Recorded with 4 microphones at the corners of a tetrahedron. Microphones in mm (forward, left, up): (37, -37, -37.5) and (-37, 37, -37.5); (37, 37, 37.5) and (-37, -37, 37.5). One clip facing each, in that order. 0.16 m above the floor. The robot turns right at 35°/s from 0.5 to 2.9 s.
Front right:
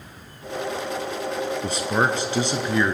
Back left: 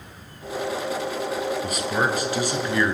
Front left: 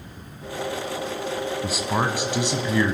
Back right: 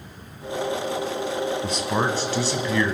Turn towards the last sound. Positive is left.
turn(degrees=5)